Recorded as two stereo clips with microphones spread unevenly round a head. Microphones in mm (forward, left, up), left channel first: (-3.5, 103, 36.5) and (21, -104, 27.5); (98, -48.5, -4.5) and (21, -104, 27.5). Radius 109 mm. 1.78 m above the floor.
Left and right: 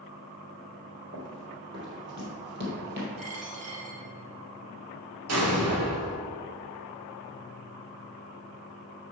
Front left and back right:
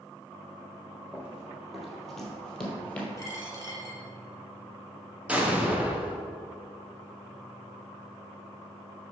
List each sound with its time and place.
1.1 s running footsteps: 90° right, 2.5 m; by 3.1 s 50° right, 2.5 m
3.2 s a dropped coin: 35° right, 3 m
5.3 s an explosion: 70° right, 1.5 m